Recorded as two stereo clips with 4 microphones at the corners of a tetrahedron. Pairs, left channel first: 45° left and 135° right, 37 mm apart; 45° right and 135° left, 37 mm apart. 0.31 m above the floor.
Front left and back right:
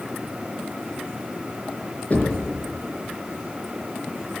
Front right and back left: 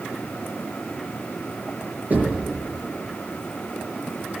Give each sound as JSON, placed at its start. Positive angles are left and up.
{"t": 2.1, "sound": "knocking", "azimuth_deg": 95, "distance_m": 4.5}